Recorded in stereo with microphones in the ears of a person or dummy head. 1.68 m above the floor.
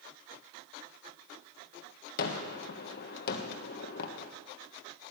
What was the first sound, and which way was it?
A gunshot, 55° left (ahead or behind).